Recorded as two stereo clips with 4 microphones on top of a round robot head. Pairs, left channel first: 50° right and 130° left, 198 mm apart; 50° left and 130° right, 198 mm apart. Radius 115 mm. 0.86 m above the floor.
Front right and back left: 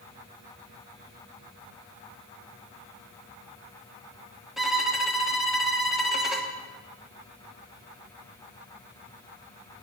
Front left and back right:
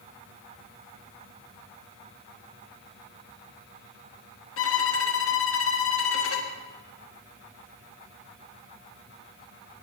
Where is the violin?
40° left, 1.3 m.